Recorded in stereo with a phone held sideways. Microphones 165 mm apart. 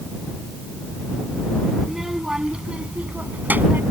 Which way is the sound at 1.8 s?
Centre (ahead or behind).